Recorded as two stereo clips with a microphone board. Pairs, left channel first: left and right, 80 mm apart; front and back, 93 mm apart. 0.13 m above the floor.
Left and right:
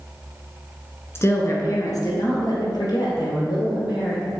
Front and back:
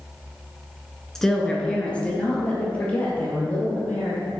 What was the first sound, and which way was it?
A woman speaking, 80° left.